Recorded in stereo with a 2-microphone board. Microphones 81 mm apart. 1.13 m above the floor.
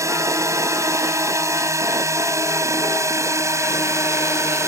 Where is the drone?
40° right (ahead or behind); by 4.7 s 35° right (ahead or behind).